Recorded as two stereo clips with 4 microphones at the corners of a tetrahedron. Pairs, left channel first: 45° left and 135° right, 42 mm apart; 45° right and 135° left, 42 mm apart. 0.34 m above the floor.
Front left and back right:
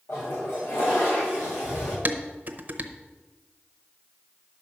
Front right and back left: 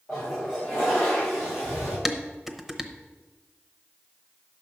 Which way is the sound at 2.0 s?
145° right.